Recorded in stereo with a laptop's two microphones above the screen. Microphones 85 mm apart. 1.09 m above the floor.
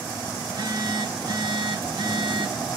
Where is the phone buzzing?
55° right (ahead or behind), 1.3 m.